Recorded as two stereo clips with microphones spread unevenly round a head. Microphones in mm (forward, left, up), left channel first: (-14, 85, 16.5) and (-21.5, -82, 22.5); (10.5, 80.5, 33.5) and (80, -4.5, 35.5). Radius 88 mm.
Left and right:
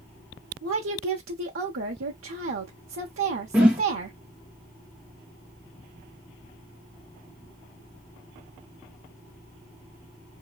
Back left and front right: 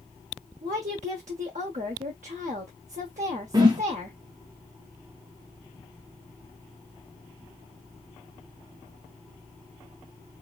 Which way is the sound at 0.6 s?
85° right.